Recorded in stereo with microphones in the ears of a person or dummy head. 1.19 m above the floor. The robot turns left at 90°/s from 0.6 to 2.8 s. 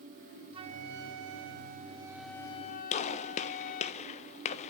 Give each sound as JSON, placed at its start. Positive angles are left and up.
{"t": 0.5, "sound": "a flute", "azimuth_deg": -30, "distance_m": 1.1}
{"t": 2.9, "sound": "a gunshot", "side_deg": 35, "distance_m": 1.1}